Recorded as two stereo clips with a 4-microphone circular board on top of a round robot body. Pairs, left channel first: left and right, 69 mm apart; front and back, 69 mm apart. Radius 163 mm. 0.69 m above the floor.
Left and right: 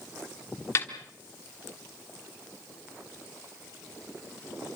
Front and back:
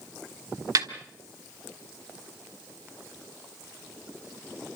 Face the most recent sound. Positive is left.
turn(degrees=140)